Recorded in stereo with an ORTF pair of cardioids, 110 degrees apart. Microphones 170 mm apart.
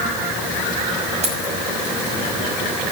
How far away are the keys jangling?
About 6 m.